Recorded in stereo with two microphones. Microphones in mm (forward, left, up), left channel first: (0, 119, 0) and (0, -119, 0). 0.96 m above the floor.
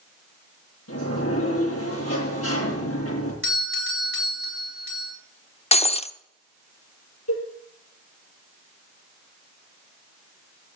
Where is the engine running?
I don't hear an engine running.